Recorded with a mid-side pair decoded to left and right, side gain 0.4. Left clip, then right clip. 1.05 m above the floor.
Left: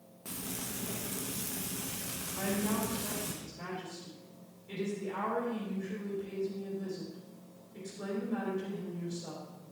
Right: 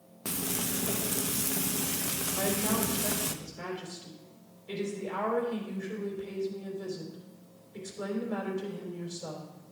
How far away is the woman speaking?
About 4 m.